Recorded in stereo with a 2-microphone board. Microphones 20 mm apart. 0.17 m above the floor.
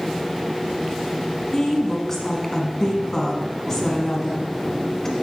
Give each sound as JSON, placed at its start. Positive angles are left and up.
{"t": 1.5, "sound": "a woman speaking", "side_deg": 25, "distance_m": 1.4}